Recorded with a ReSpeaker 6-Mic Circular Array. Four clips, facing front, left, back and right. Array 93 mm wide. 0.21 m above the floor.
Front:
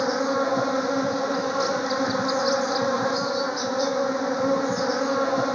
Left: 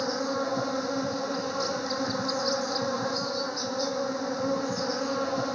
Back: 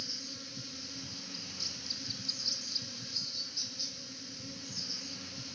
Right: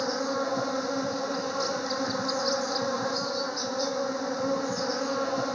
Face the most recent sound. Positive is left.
turn(degrees=0)